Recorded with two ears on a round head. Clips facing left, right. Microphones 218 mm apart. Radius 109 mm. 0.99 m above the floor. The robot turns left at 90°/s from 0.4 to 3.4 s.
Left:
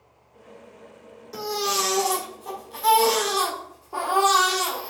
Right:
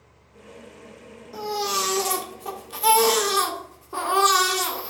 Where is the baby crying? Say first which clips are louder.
Left 1 dB; 35° left, 1.5 m; by 4.9 s 150° right, 1.5 m.